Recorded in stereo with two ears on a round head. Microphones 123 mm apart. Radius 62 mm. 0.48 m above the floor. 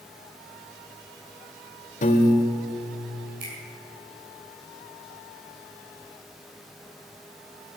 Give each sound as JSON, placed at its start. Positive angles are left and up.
{"t": 2.0, "sound": "a piano", "side_deg": 55, "distance_m": 1.9}
{"t": 3.4, "sound": "a finger snap", "side_deg": -70, "distance_m": 5.5}